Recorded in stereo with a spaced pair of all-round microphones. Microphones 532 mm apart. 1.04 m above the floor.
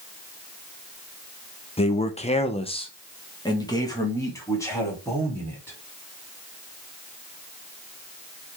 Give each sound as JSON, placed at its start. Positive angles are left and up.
{"t": 1.8, "sound": "a man speaking", "side_deg": 10, "distance_m": 0.7}